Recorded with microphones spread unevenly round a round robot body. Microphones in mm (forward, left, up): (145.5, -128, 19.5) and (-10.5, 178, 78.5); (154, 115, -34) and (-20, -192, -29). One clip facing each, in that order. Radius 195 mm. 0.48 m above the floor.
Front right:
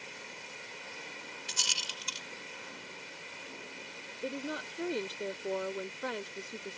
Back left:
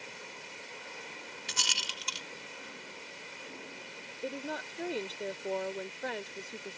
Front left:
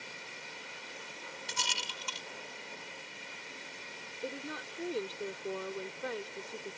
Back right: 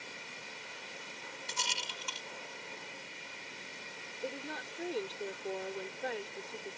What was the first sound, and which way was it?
A rattle, 120° left.